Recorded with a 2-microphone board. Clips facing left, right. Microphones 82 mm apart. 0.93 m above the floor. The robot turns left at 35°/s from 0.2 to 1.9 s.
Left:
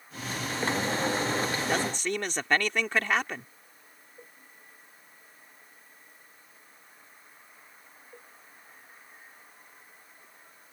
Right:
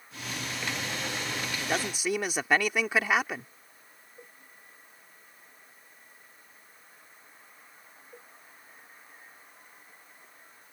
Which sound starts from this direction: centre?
A man speaking, at 1.6 s.